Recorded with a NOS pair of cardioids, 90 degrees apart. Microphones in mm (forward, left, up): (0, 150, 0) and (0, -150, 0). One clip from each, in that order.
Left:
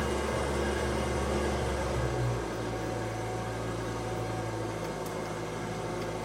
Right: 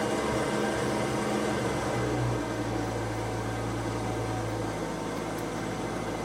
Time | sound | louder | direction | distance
0.0 | an engine running | right 3 dB | 45° right | 2.5 m